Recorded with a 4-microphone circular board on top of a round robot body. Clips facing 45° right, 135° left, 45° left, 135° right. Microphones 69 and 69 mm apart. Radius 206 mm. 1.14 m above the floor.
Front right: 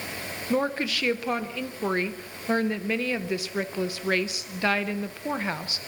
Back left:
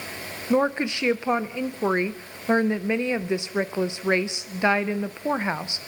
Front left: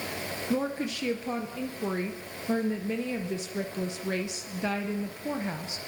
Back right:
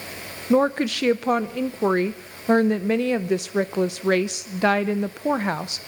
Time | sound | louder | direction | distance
0.5 | a woman speaking | back left 4 dB, back right 11 dB | 160° right | 0.8 m